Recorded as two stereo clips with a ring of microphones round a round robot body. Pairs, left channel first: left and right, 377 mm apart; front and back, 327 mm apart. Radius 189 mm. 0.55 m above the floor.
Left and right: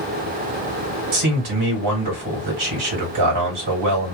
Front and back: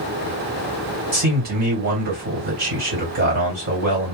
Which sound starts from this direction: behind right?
A man speaking, at 1.1 s.